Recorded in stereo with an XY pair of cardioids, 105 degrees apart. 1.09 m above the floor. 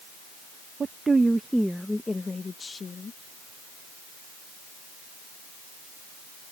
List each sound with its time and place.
0.8 s a woman speaking: 40° right; by 3.2 s 45° left